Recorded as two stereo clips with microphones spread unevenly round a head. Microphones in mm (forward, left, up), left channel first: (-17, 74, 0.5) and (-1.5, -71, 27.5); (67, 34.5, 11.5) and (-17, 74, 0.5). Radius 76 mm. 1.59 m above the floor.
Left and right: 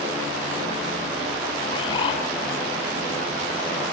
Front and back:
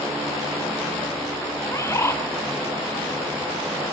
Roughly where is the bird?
Ahead left.